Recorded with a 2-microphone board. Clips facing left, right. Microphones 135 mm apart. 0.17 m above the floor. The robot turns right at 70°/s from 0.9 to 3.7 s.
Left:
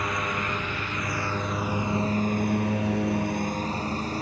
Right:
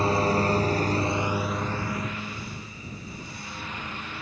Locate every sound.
0.0 s a lawn mower: 35° right (ahead or behind); by 4.2 s 40° left (ahead or behind)